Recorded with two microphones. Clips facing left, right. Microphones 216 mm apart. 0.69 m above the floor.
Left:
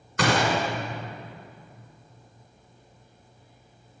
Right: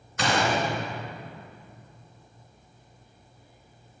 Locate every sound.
0.2 s a gunshot: 75° left (ahead or behind), 2.5 m